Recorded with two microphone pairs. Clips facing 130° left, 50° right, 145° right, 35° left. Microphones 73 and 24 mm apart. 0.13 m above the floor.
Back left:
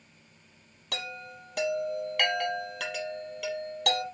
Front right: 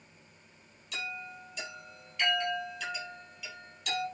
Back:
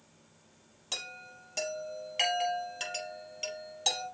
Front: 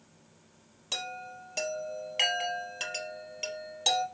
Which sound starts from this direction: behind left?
A chime, at 0.9 s.